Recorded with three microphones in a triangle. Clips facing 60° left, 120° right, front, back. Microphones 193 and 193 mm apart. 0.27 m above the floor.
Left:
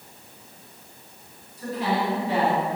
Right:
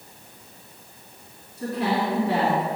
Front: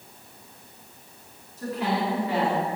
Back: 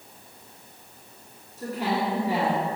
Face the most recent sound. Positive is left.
turn(degrees=-105)